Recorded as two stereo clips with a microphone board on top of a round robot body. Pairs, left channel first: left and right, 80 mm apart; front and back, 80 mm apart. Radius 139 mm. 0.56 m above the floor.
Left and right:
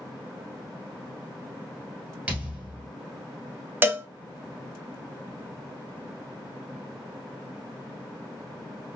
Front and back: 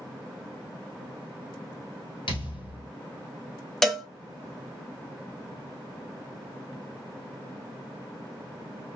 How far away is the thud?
About 1.8 m.